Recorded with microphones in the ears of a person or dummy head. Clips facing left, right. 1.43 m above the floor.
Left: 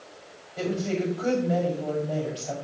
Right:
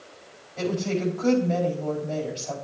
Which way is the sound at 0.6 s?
15° left (ahead or behind).